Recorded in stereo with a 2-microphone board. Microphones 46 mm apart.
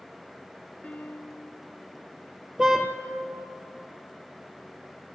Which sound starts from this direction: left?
A piano, at 0.8 s.